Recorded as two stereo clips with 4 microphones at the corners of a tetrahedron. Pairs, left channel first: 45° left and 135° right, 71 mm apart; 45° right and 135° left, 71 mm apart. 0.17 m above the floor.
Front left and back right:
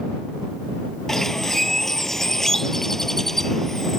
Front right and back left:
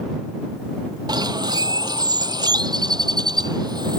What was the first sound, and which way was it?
A bird, 130° left.